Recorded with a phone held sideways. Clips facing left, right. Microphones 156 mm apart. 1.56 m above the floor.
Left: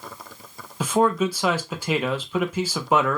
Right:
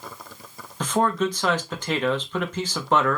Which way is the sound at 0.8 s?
10° left (ahead or behind).